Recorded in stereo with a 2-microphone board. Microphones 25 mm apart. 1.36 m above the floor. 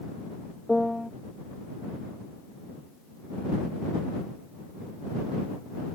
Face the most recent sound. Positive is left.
turn(degrees=5)  # may be behind; listen again after turning